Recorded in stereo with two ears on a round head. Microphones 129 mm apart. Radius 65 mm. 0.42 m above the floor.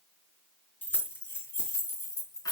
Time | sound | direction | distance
0.8 | keys jangling | 15° left (ahead or behind) | 4 m